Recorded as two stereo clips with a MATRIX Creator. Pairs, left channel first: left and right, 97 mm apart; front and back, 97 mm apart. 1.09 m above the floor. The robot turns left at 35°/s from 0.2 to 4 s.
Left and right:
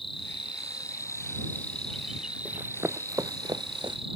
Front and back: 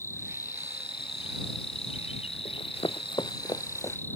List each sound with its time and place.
0.0 s an insect: 65° left; by 4.2 s 70° right
2.5 s running footsteps: 15° right; by 4.0 s 55° right